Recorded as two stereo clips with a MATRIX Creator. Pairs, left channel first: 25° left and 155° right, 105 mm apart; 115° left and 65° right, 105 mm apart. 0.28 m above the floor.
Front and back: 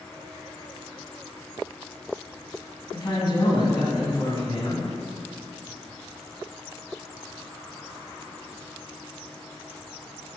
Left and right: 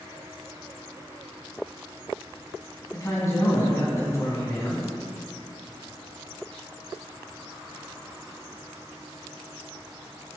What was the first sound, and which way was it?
A man speaking, 60° left.